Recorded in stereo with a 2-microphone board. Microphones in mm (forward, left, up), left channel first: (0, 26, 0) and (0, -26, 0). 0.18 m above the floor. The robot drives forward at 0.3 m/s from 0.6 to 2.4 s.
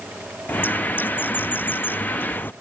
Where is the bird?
40° left (ahead or behind).